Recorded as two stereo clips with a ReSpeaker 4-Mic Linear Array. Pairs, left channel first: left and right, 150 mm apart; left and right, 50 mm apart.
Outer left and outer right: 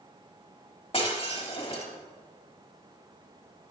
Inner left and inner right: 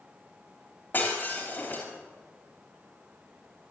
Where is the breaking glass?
40° left (ahead or behind), 3 m.